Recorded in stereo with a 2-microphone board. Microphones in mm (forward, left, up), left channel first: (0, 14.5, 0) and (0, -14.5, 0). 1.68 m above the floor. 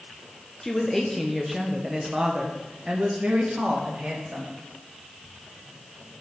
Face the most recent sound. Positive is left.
turn(degrees=-45)  # may be behind; listen again after turning